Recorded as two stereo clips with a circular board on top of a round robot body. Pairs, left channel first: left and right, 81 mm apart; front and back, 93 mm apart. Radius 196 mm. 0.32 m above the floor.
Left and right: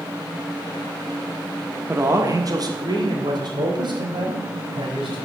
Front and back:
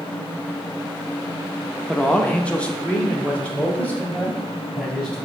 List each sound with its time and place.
1.9 s a man speaking: 70° right, 1.0 m; by 5.2 s 75° right, 3.5 m